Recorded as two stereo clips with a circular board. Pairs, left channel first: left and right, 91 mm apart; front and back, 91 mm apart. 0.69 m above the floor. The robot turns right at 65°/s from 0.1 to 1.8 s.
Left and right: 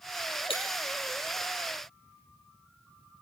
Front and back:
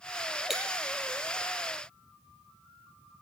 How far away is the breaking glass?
About 4.5 m.